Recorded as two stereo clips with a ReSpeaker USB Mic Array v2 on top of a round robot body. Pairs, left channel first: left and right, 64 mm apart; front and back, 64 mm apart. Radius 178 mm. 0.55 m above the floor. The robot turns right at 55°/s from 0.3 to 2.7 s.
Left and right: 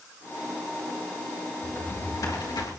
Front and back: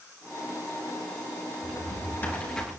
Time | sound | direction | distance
1.6 | a drawer | 25° left | 4.5 m